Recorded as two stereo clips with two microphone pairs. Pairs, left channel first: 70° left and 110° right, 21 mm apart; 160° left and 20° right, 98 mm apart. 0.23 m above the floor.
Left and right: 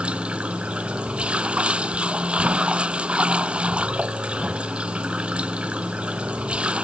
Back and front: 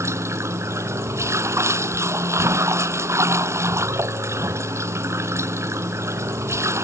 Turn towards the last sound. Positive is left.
turn(degrees=-80)